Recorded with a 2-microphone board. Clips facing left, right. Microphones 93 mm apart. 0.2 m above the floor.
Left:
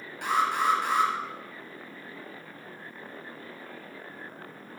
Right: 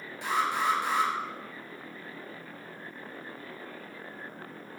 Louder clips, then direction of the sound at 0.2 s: Left 3 dB; 65° left (ahead or behind).